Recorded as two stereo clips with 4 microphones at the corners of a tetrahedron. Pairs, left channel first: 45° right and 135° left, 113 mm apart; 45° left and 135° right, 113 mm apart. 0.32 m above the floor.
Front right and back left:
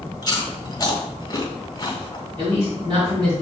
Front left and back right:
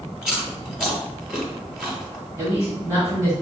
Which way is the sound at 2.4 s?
170° left.